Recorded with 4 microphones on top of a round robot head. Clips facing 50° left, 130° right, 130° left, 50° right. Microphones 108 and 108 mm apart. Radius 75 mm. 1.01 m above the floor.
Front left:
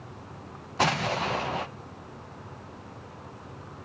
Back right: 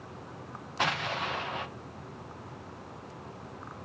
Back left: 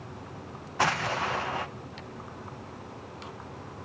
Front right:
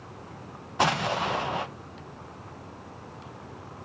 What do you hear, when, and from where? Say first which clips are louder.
0.8 s an explosion: front left 5 dB, front right 2 dB; 15° left, 0.9 m